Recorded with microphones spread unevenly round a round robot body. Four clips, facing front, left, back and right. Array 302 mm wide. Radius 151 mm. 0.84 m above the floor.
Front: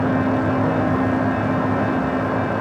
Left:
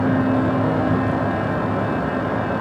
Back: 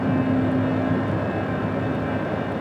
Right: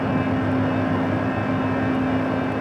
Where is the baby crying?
No baby crying in this recording.